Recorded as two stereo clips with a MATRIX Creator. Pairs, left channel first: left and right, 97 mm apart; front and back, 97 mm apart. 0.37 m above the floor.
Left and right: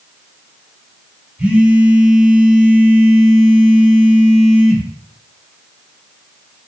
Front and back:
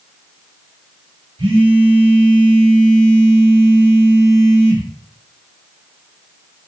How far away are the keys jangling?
No keys jangling in this recording.